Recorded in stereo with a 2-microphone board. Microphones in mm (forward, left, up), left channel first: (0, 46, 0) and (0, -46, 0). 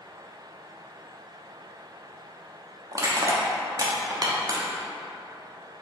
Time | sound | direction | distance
2.9 | crushing | 40° right (ahead or behind) | 0.8 m